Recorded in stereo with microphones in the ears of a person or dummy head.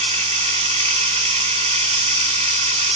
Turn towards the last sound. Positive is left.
turn(degrees=-40)  # may be behind; listen again after turning